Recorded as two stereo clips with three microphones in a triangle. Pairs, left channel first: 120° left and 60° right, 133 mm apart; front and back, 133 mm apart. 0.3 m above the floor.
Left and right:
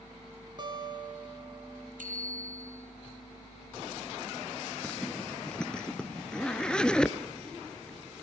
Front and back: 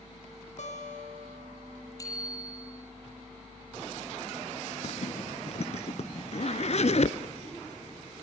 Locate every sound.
0.6 s a guitar: 10° right, 3 m
2.0 s a bicycle bell: 65° right, 6 m
4.8 s a zipper: 35° left, 1.0 m